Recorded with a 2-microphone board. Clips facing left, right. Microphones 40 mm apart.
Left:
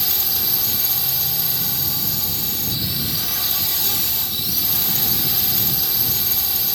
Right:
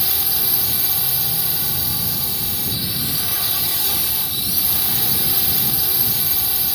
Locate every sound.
0.0 s a drone: 10° right (ahead or behind)